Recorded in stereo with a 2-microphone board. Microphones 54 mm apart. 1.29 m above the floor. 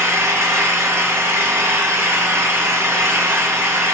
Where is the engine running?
50° right (ahead or behind), 1.4 m.